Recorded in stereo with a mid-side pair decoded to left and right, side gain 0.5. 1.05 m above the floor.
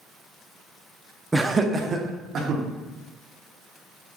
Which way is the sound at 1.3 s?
15° right.